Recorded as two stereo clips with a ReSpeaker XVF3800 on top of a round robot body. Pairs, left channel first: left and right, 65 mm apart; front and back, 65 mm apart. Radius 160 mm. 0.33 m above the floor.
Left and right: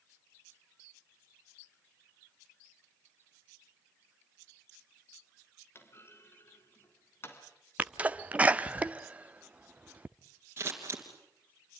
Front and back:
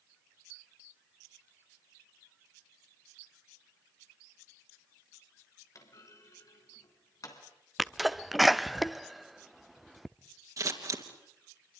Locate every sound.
5.8 s a clunk: 40° left, 3 m
7.8 s a sneeze: 95° right, 0.9 m
10.6 s scissors: 145° right, 3 m